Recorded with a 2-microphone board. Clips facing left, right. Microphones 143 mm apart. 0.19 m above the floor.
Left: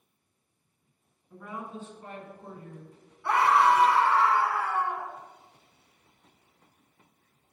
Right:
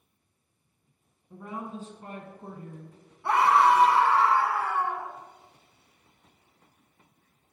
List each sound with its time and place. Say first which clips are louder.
1.3 s a woman speaking: right 2 dB; 25° right (ahead or behind), 1.7 m; by 3.0 s 50° right (ahead or behind), 1.7 m
3.2 s a scream: right 1 dB; 25° right (ahead or behind), 1.5 m